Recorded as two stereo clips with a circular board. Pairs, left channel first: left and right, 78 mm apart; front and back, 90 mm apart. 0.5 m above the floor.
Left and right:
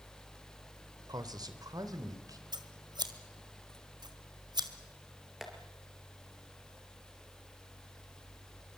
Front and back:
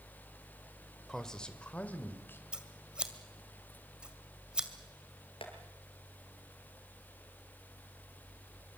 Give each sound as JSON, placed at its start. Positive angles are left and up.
{"t": 1.1, "sound": "a man speaking", "azimuth_deg": -85, "distance_m": 2.0}
{"t": 2.5, "sound": "scissors", "azimuth_deg": -100, "distance_m": 1.9}
{"t": 5.4, "sound": "tapping", "azimuth_deg": -5, "distance_m": 4.0}